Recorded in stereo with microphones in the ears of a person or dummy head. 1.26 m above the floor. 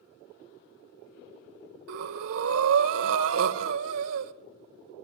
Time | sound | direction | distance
1.9 | breathing | 75° right (ahead or behind) | 0.8 m